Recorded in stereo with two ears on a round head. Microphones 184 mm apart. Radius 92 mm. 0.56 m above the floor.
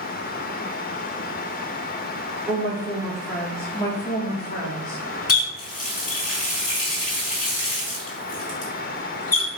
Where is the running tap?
40° left (ahead or behind), 2 m.